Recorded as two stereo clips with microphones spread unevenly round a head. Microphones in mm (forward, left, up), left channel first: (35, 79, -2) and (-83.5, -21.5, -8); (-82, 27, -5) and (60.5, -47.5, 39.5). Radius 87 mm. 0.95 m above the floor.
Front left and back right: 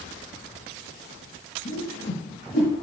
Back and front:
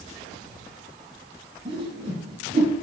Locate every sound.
1.6 s a whoosh: 30° left, 2.5 m